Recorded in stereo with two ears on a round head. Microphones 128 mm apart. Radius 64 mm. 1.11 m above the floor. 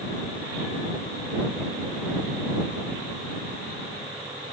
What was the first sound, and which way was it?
Only background noise.